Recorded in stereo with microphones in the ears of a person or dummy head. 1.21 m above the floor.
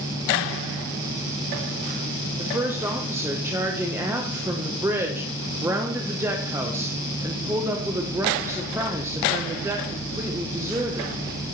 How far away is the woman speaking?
About 0.9 m.